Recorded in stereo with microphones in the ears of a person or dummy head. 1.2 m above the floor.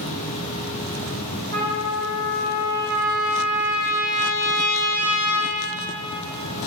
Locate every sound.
0.0 s an insect: 35° left (ahead or behind), 1.0 m
1.5 s a trumpet: 50° right (ahead or behind), 1.2 m